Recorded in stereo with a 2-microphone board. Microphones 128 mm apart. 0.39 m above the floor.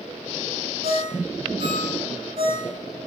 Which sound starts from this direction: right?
A ringtone, at 0.8 s.